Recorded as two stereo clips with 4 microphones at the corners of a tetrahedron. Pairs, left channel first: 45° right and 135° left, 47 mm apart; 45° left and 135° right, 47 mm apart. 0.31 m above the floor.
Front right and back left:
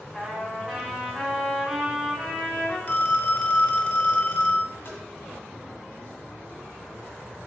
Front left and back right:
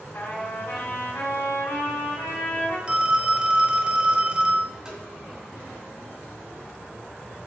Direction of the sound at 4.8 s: 60° right.